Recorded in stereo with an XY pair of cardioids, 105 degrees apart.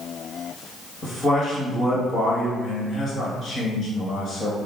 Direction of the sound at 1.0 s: 45° left.